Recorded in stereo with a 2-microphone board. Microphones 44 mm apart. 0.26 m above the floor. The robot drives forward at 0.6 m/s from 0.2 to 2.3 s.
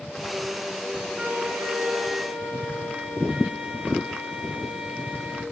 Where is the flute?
20° right (ahead or behind), 0.7 m; by 5.4 s 10° right (ahead or behind), 1.4 m.